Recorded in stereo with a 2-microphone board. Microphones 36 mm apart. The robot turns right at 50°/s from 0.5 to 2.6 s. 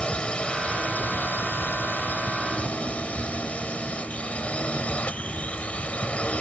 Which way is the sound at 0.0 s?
35° left.